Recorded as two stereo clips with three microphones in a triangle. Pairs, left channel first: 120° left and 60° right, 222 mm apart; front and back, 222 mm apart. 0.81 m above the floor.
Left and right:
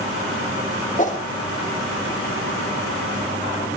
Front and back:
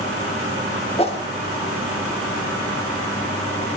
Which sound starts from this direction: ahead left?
A whoosh, at 1.0 s.